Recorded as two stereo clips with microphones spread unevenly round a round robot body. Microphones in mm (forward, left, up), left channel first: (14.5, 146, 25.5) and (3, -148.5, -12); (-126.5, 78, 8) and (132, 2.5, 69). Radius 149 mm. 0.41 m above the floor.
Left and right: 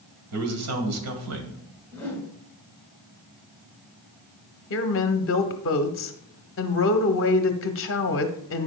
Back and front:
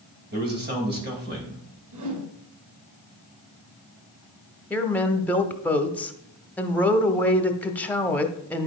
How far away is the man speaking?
About 2.5 m.